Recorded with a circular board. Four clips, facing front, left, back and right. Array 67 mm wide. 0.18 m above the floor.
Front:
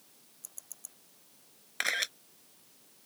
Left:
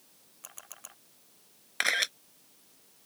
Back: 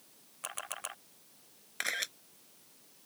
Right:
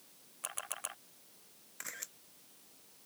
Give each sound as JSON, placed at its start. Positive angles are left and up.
{"t": 0.4, "sound": "a camera shutter", "azimuth_deg": -155}
{"t": 1.8, "sound": "a camera shutter", "azimuth_deg": 75}